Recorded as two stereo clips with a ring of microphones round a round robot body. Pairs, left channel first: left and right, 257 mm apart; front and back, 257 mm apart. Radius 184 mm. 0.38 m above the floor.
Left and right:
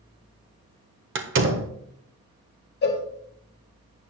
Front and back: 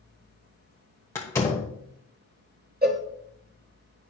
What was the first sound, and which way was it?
A door slam, 80° right.